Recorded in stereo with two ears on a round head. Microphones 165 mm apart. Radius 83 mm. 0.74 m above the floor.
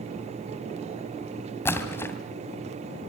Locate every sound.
1.6 s a splash: 15° left (ahead or behind), 2.5 m